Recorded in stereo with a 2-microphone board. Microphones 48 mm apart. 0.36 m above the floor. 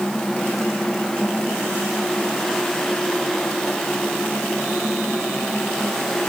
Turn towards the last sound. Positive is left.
No sound to turn to.